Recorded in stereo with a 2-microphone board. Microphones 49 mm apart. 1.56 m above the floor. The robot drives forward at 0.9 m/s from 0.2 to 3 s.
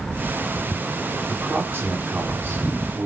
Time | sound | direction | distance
1.3 | a man speaking | 45° right (ahead or behind) | 5.5 m